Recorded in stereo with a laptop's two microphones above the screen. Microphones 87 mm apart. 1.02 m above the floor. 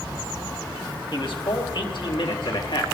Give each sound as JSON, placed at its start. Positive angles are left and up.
{"t": 1.1, "sound": "a man speaking", "side_deg": 70, "distance_m": 2.5}